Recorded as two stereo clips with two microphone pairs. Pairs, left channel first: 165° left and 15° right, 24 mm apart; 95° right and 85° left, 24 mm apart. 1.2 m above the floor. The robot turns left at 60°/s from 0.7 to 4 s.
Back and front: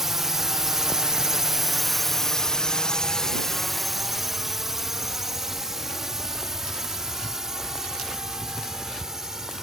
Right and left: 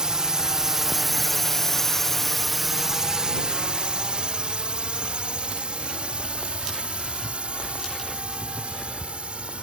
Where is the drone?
55° left.